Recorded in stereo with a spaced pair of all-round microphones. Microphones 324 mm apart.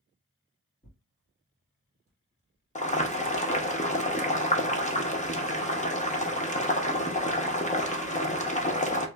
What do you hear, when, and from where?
0.8 s tearing paper: 20° left (ahead or behind), 1.3 m
2.8 s boiling: 20° left (ahead or behind), 0.6 m